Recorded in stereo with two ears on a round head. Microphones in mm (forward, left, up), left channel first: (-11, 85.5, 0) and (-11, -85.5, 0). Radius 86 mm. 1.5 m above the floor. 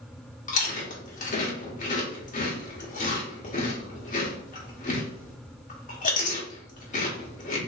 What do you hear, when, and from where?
0.5 s chewing: 45° left (ahead or behind), 1.4 m